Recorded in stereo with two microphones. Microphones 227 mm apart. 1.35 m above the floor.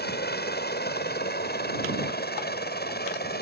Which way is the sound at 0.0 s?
45° left (ahead or behind).